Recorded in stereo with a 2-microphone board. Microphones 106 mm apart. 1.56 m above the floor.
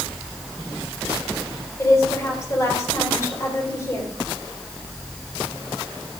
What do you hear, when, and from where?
1.8 s a woman speaking: 30° left (ahead or behind), 4.5 m